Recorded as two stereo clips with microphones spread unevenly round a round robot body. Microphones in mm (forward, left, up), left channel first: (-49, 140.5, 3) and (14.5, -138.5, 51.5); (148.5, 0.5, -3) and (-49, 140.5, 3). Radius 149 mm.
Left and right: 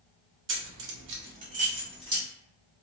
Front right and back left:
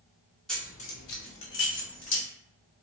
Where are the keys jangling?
120° right, 0.7 m; by 2.2 s straight ahead, 1.8 m.